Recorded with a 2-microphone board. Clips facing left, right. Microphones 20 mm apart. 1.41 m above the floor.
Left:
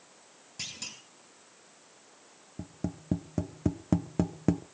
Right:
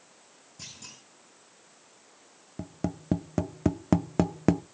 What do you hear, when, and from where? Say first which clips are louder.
0.6 s a clunk: left 5 dB; 60° left (ahead or behind), 6 m
2.6 s tapping: right 4 dB; 35° right (ahead or behind), 0.6 m